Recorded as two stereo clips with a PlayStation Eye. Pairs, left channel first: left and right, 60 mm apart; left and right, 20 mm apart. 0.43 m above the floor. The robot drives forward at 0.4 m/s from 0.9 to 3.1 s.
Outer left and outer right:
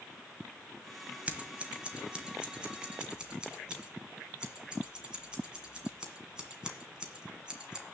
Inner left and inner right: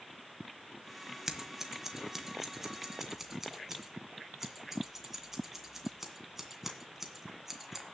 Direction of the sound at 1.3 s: 25° right (ahead or behind).